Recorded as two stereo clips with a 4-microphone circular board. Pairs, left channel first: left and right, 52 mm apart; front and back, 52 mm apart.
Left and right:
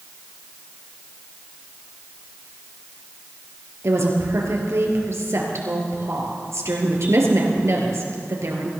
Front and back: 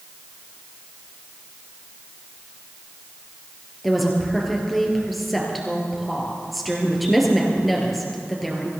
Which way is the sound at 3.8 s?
90° right.